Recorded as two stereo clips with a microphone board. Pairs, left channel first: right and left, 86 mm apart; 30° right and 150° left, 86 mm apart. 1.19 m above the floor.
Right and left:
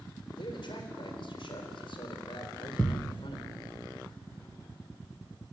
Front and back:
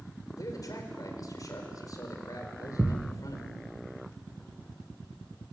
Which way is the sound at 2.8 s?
160° right.